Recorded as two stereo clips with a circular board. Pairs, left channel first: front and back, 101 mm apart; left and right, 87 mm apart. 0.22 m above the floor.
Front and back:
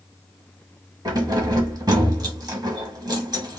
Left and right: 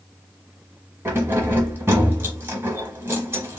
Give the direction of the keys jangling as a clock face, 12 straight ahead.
5 o'clock.